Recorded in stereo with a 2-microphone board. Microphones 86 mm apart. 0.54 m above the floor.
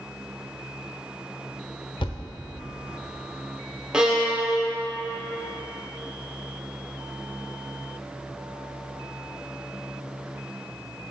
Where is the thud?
60° left (ahead or behind), 0.6 m.